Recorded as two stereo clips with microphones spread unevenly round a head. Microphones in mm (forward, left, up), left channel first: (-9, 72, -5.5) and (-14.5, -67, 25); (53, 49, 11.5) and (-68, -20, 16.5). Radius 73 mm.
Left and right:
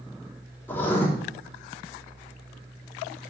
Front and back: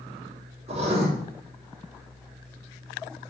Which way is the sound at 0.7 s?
165° left.